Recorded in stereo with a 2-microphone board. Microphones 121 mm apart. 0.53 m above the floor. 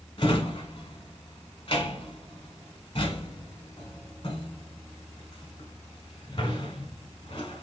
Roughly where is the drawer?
Left.